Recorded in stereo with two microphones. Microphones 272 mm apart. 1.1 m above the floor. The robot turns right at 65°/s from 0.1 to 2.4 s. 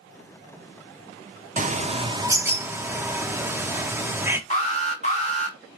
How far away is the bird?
About 0.6 m.